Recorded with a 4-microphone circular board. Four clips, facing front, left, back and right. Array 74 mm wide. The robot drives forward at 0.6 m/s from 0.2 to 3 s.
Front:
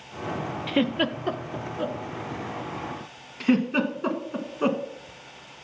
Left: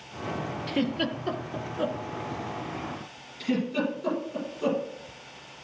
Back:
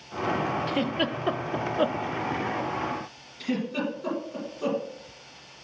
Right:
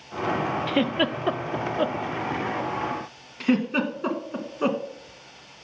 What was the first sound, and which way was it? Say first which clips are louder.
A giggle: right 2 dB, front 2 dB; 45° right.